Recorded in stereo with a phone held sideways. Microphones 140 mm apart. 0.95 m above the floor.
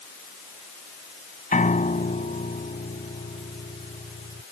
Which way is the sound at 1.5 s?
70° left (ahead or behind).